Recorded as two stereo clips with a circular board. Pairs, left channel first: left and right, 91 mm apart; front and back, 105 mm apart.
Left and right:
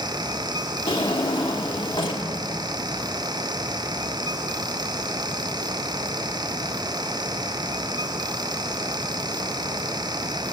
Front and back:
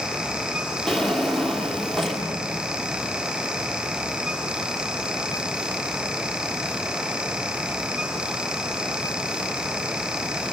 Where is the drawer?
90° left, 1.3 m.